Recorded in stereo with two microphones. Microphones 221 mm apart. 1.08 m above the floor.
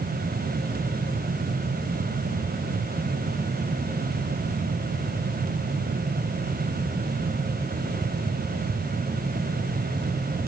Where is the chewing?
No chewing in this recording.